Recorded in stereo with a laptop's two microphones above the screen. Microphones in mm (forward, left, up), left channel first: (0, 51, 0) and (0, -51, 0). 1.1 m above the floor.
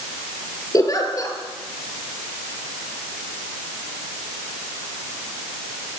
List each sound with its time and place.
0.7 s a giggle: 35° left (ahead or behind), 4 m